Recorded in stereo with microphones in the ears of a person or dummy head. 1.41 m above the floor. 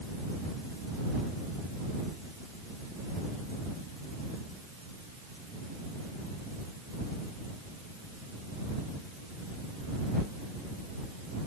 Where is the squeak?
No squeak in this recording.